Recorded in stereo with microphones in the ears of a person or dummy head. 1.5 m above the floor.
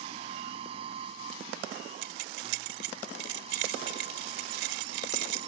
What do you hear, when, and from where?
0.0 s a machine running: 35° right (ahead or behind)
2.0 s keys jangling: 75° right (ahead or behind)